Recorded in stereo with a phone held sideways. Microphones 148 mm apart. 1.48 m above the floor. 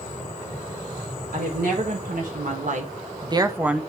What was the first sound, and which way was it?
A woman speaking, 80° right.